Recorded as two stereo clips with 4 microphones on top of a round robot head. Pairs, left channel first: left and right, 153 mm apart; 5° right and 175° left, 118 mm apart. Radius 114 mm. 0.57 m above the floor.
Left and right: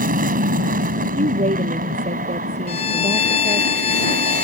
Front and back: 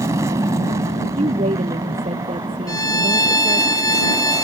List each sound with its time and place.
0.0 s an aircraft: 115° right
1.2 s a woman speaking: 135° right
2.7 s a violin: 50° left